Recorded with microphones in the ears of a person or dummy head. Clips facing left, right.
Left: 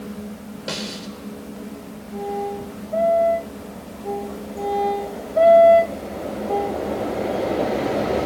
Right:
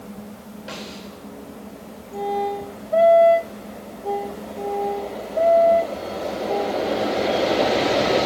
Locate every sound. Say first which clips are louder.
0.7 s a snare drum: left 5 dB; 65° left (ahead or behind), 4.5 m